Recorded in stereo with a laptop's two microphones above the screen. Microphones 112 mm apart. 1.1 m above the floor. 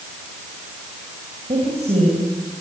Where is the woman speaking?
70° right (ahead or behind), 6.5 m.